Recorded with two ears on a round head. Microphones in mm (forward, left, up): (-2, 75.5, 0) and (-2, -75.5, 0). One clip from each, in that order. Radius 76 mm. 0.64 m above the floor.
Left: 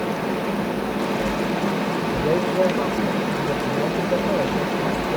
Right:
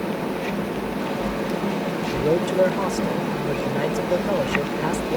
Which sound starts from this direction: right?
A man speaking, at 2.1 s.